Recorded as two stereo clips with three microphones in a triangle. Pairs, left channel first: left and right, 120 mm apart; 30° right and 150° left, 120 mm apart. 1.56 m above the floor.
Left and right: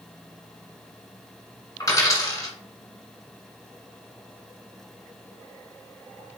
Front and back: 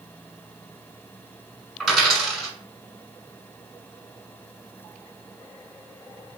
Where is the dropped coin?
60° left, 1.7 m.